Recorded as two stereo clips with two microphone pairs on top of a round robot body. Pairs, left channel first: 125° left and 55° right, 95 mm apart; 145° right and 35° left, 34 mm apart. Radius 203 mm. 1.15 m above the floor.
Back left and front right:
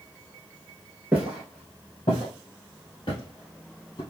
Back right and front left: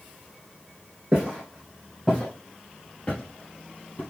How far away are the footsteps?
About 1.4 m.